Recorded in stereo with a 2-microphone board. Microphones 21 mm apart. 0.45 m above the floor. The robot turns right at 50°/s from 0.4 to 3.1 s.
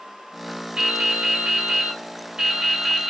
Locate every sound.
0.8 s dripping: 125° right, 1.1 m; by 3.1 s 5° right, 1.1 m